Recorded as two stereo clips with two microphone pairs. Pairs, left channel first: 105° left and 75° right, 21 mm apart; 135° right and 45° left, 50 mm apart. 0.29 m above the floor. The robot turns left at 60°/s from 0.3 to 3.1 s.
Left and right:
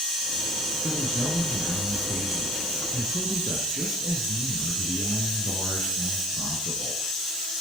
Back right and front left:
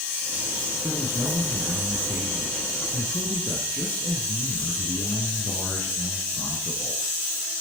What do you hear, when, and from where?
0.8 s a man speaking: 45° left, 4 m; by 7.0 s 90° right, 4 m